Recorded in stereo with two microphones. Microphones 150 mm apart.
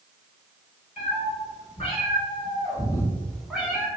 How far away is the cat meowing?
About 1.5 m.